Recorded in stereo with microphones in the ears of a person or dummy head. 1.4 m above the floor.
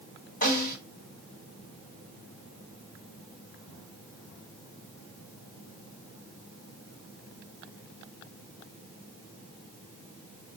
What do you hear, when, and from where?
0.4 s a snare drum: 35° left (ahead or behind), 1.9 m